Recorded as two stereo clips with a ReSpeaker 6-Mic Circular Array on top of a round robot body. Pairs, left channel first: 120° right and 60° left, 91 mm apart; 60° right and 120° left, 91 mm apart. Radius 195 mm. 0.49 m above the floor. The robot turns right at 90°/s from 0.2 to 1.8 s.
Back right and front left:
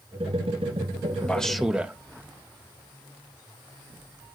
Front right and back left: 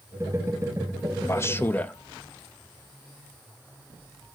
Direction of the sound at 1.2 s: 60° right.